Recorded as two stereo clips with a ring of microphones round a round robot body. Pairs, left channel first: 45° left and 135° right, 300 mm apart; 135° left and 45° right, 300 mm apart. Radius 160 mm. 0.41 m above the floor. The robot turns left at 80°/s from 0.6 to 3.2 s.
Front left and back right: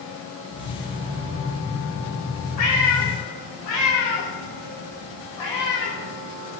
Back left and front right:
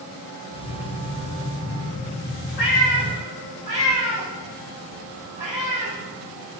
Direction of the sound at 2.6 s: 85° left.